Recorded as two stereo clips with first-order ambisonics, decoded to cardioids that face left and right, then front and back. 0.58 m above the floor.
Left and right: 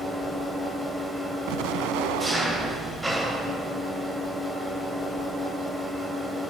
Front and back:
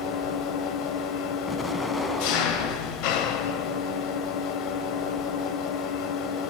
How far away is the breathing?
I don't hear breathing.